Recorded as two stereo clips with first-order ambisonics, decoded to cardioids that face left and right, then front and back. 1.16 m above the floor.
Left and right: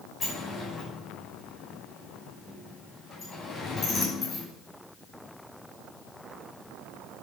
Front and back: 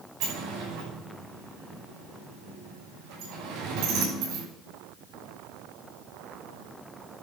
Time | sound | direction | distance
0.2 | a sliding door | 160° left | 6 m